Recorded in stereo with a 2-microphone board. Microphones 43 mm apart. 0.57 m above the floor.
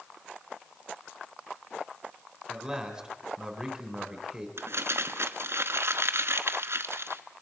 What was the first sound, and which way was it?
A man speaking, 15° right (ahead or behind).